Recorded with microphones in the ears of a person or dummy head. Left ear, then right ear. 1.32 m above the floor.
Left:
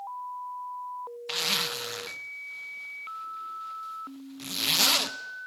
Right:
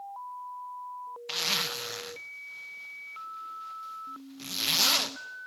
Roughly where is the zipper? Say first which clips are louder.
Left 1 dB; centre.